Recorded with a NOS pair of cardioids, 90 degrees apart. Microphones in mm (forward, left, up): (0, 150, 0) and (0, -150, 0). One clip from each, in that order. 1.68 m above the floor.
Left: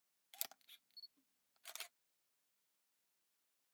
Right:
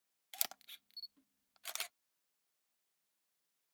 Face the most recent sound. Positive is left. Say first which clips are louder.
# right 8 dB
turn(degrees=-40)